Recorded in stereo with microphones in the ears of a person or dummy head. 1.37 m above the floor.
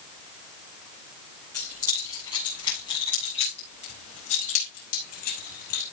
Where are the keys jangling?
20° left (ahead or behind), 8.5 m; by 5.8 s 55° left (ahead or behind), 6 m.